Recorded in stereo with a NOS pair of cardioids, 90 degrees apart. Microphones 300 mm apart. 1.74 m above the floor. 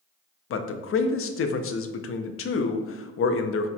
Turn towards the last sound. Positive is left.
turn(degrees=50)